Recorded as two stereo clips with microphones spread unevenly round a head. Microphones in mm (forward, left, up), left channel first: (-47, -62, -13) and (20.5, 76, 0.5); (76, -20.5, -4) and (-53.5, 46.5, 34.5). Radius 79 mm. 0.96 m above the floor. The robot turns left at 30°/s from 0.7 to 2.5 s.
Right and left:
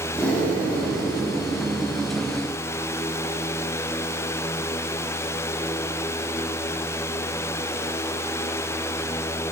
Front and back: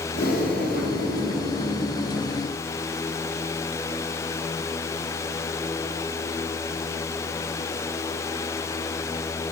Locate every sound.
0.1 s breathing: 35° right, 2 m; by 2.2 s 80° right, 2 m